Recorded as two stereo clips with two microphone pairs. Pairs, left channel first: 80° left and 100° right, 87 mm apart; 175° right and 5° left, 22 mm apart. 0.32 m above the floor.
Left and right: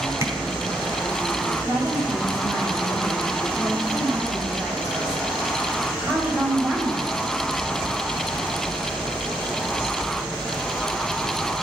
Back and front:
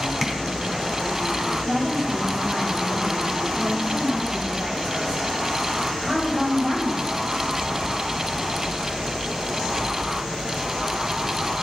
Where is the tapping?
60° right, 0.9 m.